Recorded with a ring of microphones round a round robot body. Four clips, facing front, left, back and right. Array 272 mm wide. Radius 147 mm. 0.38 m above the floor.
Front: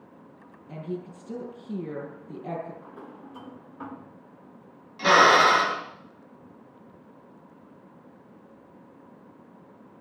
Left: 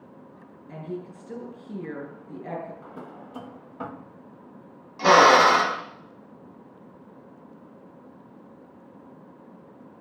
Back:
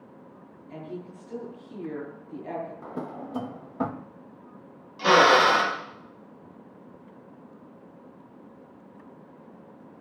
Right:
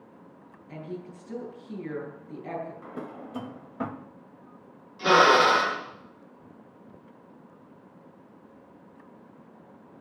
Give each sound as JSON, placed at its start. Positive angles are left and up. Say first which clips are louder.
{"t": 0.7, "sound": "a woman speaking", "louder": "left 3 dB, front 3 dB", "azimuth_deg": 30, "distance_m": 7.0}
{"t": 2.8, "sound": "a drawer", "louder": "right 2 dB, back 8 dB", "azimuth_deg": -165, "distance_m": 0.7}
{"t": 5.0, "sound": "a drill", "louder": "left 4 dB, even", "azimuth_deg": 75, "distance_m": 3.5}